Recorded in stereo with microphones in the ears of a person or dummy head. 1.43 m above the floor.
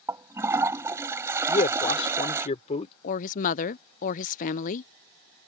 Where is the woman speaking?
40° left (ahead or behind).